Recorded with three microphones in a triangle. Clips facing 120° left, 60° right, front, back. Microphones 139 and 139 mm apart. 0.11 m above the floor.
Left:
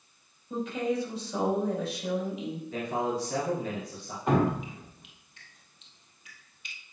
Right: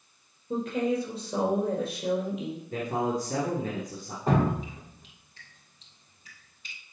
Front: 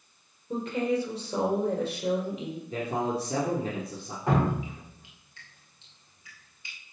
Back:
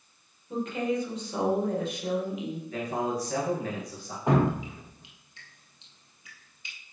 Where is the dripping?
110° right, 2 m.